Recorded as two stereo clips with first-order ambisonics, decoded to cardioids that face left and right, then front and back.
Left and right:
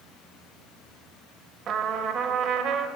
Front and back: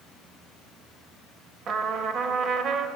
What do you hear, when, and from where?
1.7 s a trumpet: 130° right, 0.5 m